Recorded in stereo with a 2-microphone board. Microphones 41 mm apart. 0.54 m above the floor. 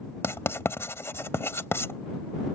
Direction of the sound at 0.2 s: 75° left (ahead or behind).